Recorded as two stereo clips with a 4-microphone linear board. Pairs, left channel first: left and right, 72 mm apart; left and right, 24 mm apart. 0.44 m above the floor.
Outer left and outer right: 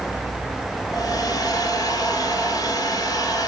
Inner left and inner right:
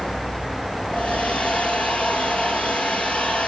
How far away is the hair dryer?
About 3.5 m.